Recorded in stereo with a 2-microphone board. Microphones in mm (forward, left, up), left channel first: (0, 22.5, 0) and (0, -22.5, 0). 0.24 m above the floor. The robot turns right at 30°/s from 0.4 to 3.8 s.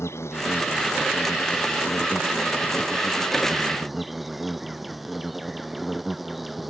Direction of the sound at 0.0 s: 85° left.